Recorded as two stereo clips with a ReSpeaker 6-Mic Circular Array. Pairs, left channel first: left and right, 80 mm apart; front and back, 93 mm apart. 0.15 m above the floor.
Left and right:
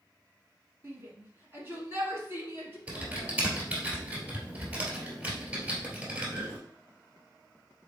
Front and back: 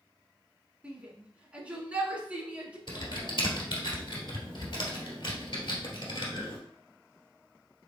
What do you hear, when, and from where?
0.8 s a shout: 115° right, 1.4 m
2.9 s typing on a keyboard: 20° right, 1.7 m